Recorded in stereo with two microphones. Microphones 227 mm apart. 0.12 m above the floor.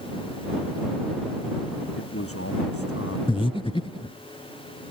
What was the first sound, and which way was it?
A man speaking, 80° left.